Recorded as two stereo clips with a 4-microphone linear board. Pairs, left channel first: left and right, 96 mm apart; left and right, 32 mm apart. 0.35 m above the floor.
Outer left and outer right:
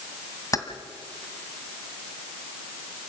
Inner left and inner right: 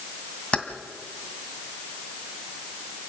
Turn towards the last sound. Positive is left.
turn(degrees=35)  # may be behind; listen again after turning